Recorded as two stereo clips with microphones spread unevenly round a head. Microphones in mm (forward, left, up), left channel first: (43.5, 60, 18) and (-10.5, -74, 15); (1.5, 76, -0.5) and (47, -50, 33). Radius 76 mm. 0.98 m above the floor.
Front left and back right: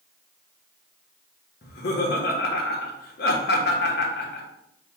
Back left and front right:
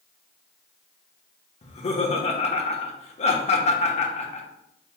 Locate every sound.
1.6 s laughter: 80° left, 1.0 m